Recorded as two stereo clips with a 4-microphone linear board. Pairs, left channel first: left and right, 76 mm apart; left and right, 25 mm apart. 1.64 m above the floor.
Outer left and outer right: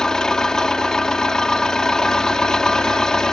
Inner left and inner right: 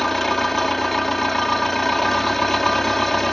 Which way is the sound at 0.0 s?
10° left (ahead or behind).